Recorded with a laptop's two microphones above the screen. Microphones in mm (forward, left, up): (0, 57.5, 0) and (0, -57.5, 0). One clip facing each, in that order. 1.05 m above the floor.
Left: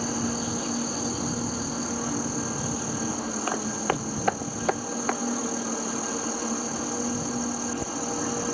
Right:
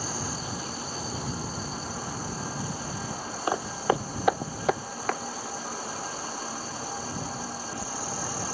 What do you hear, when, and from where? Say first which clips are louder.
0.0 s an insect: left 6 dB; 85° left
3.5 s footsteps: right 3 dB; 20° right (ahead or behind); by 5.2 s centre (ahead or behind)